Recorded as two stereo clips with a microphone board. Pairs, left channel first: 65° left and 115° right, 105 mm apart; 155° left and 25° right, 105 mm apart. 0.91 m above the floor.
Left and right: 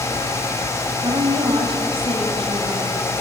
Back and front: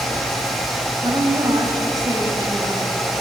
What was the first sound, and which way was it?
A woman speaking, 75° right.